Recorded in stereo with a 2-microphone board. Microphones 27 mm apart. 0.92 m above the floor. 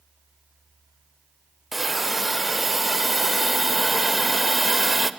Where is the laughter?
No laughter in this recording.